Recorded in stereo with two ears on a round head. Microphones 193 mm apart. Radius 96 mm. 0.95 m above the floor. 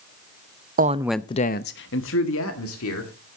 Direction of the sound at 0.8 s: 40° right (ahead or behind).